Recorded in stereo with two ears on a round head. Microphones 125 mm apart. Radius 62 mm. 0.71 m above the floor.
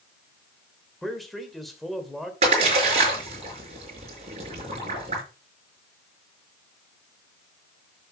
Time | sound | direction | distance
1.0 | a man speaking | centre (ahead or behind) | 2.5 m
2.4 | a splash | 50° right (ahead or behind) | 5.5 m